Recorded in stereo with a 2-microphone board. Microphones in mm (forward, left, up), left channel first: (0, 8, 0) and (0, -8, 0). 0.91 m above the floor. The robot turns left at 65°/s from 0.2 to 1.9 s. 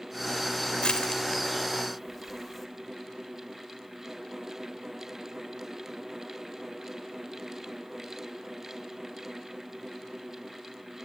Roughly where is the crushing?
Left.